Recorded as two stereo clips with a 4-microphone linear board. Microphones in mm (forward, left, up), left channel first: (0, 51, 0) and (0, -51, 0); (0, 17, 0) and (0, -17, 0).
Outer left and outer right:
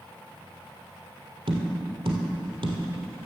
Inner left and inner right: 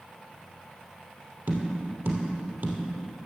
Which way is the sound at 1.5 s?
70° right (ahead or behind).